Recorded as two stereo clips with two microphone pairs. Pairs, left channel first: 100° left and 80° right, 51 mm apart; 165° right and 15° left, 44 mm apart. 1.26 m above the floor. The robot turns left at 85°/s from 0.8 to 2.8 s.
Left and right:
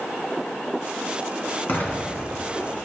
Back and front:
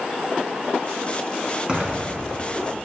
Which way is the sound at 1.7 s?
80° left.